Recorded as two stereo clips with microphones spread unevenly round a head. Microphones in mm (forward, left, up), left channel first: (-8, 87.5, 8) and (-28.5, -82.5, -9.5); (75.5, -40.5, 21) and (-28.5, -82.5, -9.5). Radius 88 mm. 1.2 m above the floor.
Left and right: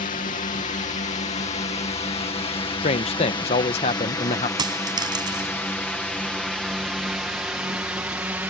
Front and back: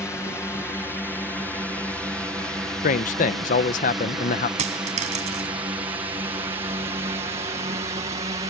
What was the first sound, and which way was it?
A drone, 100° left.